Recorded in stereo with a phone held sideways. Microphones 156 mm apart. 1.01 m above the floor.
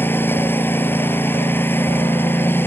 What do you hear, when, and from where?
0.0 s a lawn mower: 15° left (ahead or behind)